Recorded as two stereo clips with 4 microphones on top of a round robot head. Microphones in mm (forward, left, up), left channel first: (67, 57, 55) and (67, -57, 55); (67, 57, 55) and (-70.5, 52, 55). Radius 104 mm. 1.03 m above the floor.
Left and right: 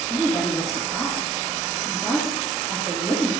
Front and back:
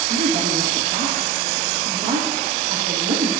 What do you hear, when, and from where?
0.1 s a woman speaking: 165° left, 2.5 m